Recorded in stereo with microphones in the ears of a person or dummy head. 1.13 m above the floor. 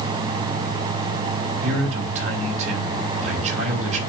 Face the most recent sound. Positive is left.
turn(degrees=-45)  # may be behind; listen again after turning